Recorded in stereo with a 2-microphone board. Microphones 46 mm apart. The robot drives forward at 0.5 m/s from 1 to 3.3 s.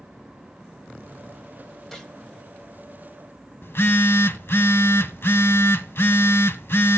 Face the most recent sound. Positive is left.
turn(degrees=60)  # may be behind; listen again after turning